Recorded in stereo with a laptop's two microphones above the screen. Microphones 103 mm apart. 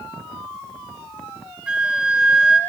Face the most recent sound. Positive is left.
turn(degrees=-10)  # may be behind; listen again after turning